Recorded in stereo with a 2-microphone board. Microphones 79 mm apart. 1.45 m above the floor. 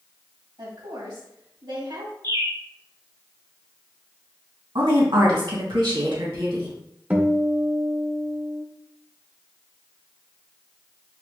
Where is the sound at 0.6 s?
80° right, 2 m.